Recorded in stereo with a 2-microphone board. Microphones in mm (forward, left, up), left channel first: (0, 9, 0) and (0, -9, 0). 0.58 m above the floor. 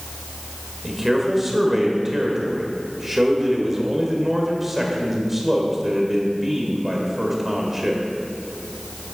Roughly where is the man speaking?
Centre.